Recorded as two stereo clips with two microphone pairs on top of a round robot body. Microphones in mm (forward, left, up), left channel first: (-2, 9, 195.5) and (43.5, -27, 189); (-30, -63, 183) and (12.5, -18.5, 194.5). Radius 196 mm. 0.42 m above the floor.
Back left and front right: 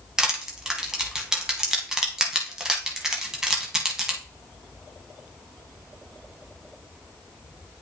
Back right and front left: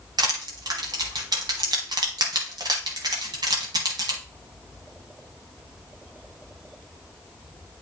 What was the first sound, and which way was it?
Crushing, 45° left.